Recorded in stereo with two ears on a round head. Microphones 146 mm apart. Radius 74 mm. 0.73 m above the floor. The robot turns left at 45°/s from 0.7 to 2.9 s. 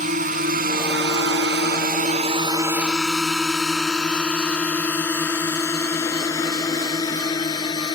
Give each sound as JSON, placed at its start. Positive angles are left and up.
{"t": 0.0, "sound": "a drone", "side_deg": -45}